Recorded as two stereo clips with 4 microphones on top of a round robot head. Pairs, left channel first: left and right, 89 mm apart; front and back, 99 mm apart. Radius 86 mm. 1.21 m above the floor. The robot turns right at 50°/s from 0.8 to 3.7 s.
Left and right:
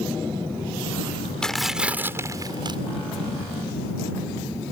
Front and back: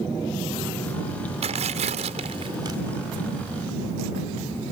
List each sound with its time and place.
1.4 s tearing paper: 170° left; by 2.8 s 120° right